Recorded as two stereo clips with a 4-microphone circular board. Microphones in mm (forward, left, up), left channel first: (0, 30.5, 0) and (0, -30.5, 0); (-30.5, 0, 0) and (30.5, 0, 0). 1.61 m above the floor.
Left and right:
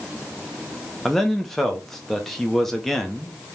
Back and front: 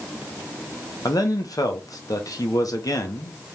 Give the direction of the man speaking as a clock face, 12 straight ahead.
6 o'clock.